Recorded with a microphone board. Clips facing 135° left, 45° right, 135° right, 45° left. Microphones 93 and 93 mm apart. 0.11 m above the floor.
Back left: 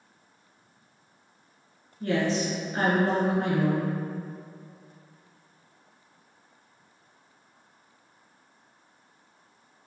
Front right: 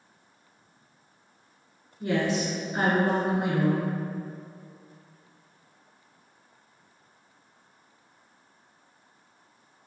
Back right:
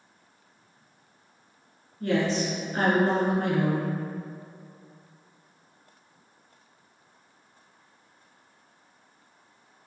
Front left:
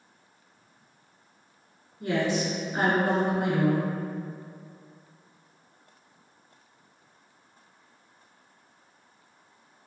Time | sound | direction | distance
2.0 | a woman speaking | straight ahead | 1.3 m